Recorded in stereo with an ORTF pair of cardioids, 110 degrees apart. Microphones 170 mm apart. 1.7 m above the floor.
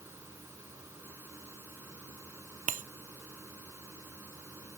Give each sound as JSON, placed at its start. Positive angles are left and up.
{"t": 0.0, "sound": "a fan", "azimuth_deg": -15}
{"t": 2.7, "sound": "breaking glass", "azimuth_deg": -50}